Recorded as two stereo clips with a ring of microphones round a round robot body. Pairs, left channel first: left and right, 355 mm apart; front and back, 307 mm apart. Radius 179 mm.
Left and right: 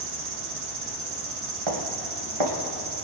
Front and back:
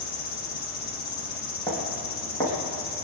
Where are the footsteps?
85° right, 4 m.